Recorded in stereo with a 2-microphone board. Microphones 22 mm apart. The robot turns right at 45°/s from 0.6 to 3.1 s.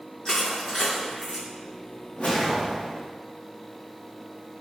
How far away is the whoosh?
About 1.0 m.